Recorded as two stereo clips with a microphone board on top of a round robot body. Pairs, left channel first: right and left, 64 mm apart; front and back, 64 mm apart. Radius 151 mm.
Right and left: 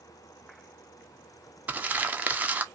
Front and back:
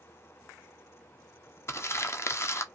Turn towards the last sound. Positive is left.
turn(degrees=30)